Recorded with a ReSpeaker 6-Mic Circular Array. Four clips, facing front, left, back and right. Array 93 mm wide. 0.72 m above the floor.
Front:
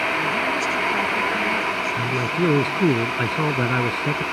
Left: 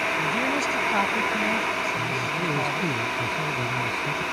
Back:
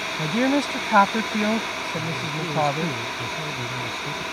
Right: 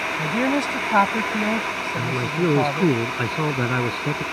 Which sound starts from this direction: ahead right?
A man speaking, at 2.0 s.